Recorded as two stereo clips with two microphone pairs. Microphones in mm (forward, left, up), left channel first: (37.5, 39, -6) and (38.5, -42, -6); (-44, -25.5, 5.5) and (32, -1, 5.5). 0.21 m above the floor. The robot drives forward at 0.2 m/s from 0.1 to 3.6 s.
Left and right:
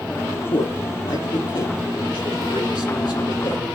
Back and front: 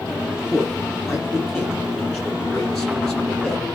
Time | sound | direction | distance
0.5 | a man speaking | 105° left | 5.5 m